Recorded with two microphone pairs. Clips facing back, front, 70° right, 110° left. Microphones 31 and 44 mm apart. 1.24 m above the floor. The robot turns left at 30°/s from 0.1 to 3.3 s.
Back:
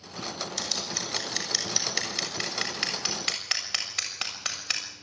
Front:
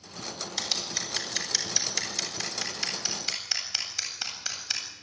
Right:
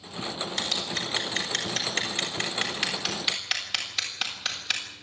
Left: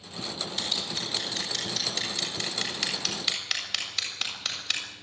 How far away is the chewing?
No chewing in this recording.